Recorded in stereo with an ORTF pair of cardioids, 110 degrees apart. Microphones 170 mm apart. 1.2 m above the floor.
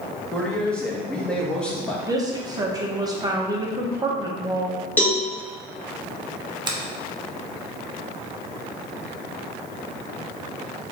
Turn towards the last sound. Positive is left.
turn(degrees=-25)